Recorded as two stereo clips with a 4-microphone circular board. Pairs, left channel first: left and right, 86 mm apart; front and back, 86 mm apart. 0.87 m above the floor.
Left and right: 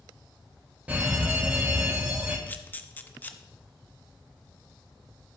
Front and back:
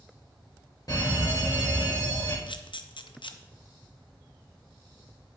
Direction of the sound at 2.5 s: 20° left.